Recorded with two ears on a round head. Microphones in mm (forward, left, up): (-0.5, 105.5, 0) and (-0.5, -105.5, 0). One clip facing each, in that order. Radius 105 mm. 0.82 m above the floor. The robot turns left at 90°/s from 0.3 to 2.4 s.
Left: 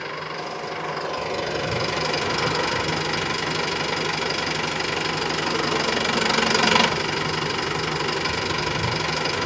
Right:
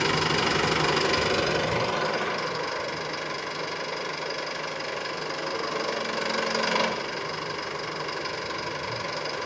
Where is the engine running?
70° right, 1.5 m; by 9.5 s 100° left, 1.5 m.